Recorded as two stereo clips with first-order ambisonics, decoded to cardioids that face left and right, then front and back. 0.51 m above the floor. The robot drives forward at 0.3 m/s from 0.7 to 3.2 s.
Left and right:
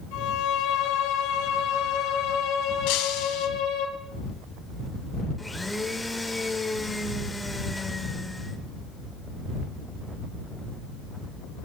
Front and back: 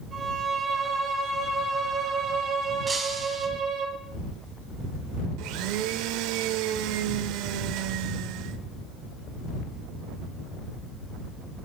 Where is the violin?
105° left, 2.5 m; by 3.9 s 120° left, 2.5 m.